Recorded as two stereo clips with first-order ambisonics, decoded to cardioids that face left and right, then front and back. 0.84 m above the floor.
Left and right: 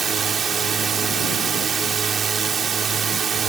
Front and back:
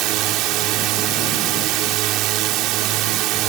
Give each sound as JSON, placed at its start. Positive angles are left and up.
{"t": 0.0, "sound": "a drone", "azimuth_deg": -155}